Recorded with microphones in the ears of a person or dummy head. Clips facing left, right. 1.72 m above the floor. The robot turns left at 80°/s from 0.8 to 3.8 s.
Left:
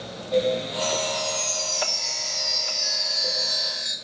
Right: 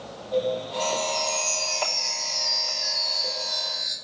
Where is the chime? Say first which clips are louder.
Even; 5° right, 1.7 m; by 3.9 s 115° left, 1.7 m.